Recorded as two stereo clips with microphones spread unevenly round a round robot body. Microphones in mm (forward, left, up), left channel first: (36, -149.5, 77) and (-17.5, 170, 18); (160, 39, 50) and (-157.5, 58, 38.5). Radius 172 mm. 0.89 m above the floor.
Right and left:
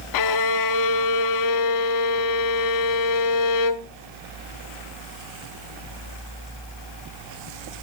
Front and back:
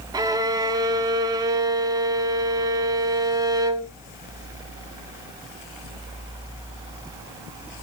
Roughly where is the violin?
Right.